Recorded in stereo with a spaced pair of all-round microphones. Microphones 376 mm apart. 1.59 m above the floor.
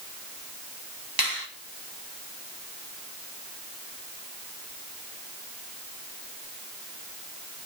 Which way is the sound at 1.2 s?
70° right (ahead or behind).